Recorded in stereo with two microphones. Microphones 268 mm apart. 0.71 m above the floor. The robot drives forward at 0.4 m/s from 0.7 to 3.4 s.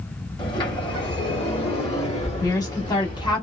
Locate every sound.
0.4 s a sliding door: 20° left (ahead or behind), 2.5 m; by 3.4 s 35° left (ahead or behind), 1.4 m
2.4 s a woman speaking: 15° left (ahead or behind), 1.6 m